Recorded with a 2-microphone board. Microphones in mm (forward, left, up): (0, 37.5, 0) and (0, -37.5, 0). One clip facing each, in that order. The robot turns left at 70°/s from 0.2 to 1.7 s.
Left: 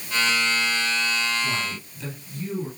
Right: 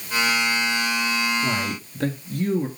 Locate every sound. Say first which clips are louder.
1.4 s a man speaking: right 3 dB; 50° right (ahead or behind), 2.5 m; by 2.7 s 55° right (ahead or behind), 2.5 m